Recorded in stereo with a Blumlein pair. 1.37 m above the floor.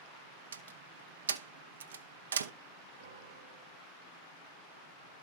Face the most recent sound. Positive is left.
turn(degrees=-65)